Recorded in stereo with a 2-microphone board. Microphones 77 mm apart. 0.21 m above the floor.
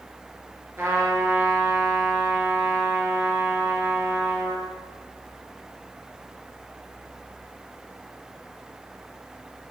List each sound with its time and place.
0.8 s a trumpet: 30° right (ahead or behind), 2.5 m